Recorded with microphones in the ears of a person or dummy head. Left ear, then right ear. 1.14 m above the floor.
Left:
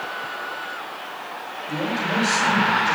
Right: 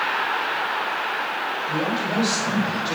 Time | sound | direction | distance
1.7 | a man speaking | 5° right (ahead or behind) | 5 m